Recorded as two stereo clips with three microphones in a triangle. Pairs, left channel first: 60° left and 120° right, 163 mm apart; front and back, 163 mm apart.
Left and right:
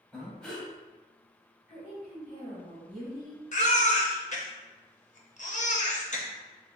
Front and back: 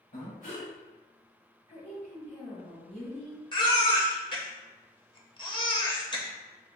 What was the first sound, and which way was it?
Breathing, 25° right.